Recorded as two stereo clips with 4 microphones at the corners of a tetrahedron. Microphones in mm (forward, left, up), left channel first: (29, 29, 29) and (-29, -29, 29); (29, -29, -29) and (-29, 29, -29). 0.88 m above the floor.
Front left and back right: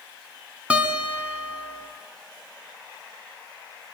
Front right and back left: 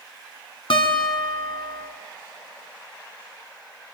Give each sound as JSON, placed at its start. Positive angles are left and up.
{"t": 0.7, "sound": "a guitar", "azimuth_deg": -60, "distance_m": 2.5}